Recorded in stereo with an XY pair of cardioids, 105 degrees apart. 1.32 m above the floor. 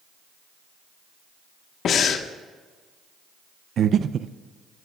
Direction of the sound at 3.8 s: 55° right.